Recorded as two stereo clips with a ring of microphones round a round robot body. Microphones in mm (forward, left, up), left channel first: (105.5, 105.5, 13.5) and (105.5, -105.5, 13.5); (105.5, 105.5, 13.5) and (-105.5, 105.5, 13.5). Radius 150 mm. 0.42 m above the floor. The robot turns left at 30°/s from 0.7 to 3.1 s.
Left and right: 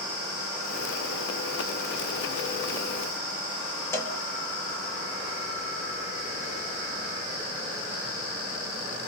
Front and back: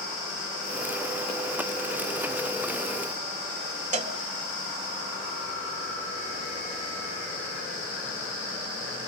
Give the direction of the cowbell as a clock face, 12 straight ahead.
7 o'clock.